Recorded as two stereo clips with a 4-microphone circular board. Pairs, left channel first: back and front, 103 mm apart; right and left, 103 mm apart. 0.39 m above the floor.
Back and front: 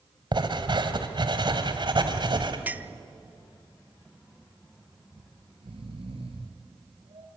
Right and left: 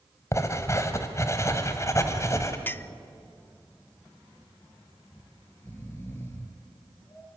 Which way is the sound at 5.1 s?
25° right.